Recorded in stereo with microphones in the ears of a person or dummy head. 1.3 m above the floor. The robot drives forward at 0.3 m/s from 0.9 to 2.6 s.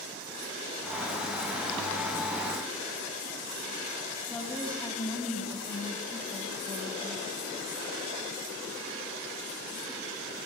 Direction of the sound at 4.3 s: 5° left (ahead or behind).